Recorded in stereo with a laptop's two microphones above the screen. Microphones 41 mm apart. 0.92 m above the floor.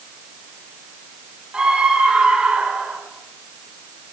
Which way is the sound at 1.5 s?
15° right (ahead or behind).